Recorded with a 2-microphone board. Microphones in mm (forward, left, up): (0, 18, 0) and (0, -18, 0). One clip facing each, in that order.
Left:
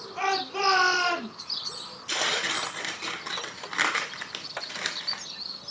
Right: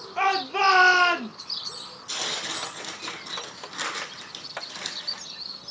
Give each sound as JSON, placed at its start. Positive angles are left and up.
{"t": 0.2, "sound": "a shout", "side_deg": -30, "distance_m": 3.0}
{"t": 2.1, "sound": "tearing paper", "side_deg": 60, "distance_m": 1.0}